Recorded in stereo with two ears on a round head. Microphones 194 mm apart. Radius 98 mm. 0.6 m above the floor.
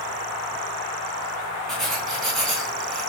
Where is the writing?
Centre (ahead or behind), 2.5 m.